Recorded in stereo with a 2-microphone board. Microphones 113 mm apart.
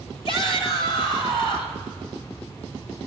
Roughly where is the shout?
Left.